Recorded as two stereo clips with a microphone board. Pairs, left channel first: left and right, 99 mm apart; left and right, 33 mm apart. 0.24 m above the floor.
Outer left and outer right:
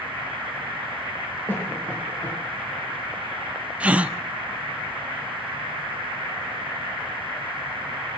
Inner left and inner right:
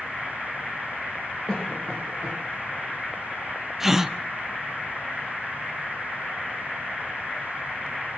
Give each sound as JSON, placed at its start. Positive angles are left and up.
{"t": 1.5, "sound": "a cough", "side_deg": 20, "distance_m": 7.5}
{"t": 3.8, "sound": "a gasp", "side_deg": -15, "distance_m": 0.6}